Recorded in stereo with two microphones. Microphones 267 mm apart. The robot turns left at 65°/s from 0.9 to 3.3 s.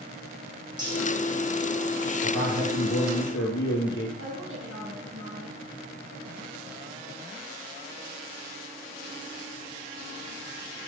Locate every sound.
0.8 s cutlery clinking: 15° right (ahead or behind), 6.5 m; by 1.0 s 10° right (ahead or behind), 6.5 m
2.2 s a man speaking: 115° left, 4.5 m; by 4.1 s 45° left, 4.5 m
4.2 s a woman speaking: 45° right (ahead or behind), 6 m